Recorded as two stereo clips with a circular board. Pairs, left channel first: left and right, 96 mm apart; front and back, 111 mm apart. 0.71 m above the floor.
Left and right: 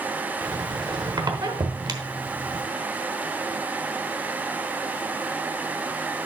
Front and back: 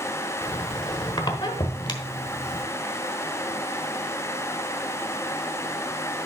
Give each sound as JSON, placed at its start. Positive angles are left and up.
{"t": 0.4, "sound": "a squeak", "azimuth_deg": -45, "distance_m": 1.1}